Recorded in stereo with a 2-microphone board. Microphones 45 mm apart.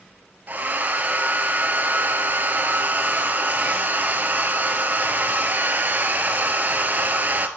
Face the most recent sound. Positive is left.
turn(degrees=-40)  # may be behind; listen again after turning